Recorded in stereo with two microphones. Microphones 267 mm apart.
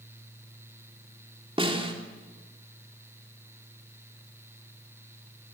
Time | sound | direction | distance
1.6 | a snare drum | 20° right (ahead or behind) | 3.5 m